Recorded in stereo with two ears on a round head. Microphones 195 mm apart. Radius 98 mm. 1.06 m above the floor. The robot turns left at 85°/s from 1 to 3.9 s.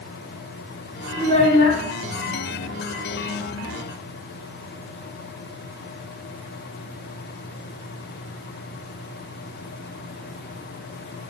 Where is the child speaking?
165° left, 1.9 m; by 1.8 s 110° left, 1.9 m.